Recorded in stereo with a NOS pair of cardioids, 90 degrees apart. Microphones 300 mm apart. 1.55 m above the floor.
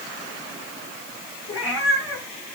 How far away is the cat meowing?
About 5 m.